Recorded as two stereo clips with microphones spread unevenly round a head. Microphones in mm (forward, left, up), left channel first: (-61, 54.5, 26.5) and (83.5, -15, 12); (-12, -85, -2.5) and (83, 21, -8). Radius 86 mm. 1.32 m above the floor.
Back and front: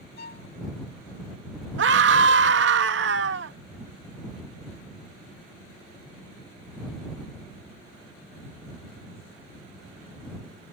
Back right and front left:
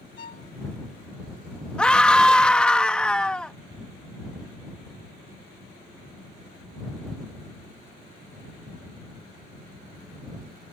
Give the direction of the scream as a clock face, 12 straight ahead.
2 o'clock.